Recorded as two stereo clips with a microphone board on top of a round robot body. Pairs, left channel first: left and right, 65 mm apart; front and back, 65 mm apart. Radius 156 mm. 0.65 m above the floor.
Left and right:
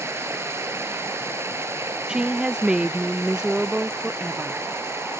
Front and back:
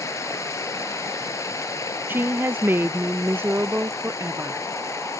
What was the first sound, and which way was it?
Running water, 40° right.